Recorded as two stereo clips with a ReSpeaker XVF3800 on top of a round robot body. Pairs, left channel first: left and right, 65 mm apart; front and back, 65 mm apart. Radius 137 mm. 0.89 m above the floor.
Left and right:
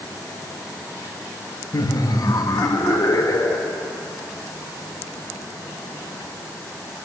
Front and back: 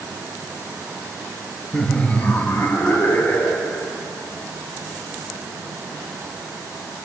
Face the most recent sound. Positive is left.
turn(degrees=65)